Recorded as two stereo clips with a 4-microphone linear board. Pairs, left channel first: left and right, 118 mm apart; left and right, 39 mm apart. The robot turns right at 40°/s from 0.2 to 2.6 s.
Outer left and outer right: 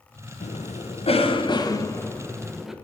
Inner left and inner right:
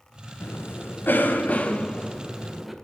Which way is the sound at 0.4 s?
85° left.